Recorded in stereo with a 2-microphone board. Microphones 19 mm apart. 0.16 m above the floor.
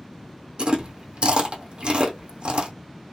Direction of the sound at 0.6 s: 65° right (ahead or behind).